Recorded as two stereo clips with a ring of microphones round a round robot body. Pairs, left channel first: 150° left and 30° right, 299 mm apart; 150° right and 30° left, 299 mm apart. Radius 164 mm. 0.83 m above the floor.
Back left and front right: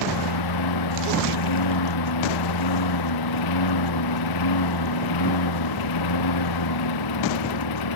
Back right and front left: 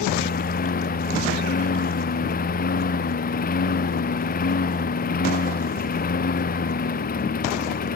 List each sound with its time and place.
0.0 s a lawn mower: 150° left